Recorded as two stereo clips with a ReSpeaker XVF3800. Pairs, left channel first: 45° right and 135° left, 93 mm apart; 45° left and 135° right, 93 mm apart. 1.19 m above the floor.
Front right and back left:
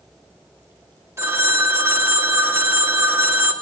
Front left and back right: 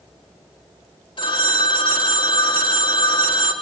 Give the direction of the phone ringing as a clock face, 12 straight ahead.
10 o'clock.